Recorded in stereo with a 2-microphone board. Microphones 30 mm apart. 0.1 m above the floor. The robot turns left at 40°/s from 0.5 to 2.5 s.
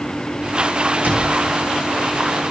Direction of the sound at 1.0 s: 65° right (ahead or behind).